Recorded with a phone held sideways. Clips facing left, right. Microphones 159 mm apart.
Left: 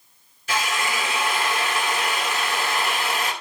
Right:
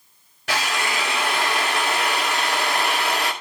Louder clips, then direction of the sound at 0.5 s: Right 1 dB; 75° right (ahead or behind).